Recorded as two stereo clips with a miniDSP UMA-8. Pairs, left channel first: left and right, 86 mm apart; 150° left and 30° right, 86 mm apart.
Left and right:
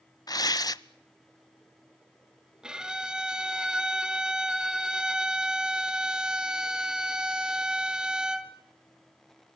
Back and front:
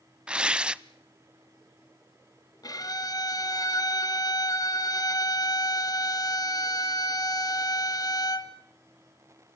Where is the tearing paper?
50° left, 0.6 m.